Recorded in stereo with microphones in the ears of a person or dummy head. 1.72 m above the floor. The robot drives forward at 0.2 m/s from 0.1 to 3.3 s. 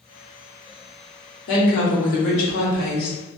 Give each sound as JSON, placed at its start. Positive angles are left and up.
{"t": 1.5, "sound": "a woman speaking", "side_deg": 70, "distance_m": 1.0}